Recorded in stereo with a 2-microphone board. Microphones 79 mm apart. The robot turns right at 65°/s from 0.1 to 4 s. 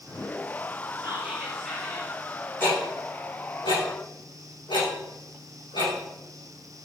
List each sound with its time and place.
1.0 s whispering: 40° right, 4 m; by 2.1 s 35° left, 4 m
2.6 s ticking: 20° left (ahead or behind), 8 m; by 5.9 s 65° left (ahead or behind), 8 m